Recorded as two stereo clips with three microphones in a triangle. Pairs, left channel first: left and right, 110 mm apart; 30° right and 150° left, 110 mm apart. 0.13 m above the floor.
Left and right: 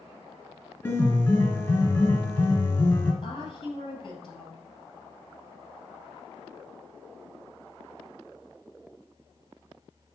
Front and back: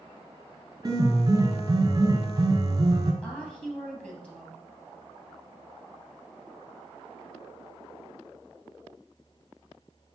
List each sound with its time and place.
0.8 s a piano: 145° left, 1.7 m
3.2 s a woman speaking: 50° left, 3 m